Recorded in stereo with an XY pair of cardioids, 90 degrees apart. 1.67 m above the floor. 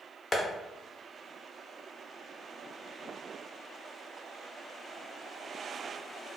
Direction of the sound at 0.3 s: 35° left.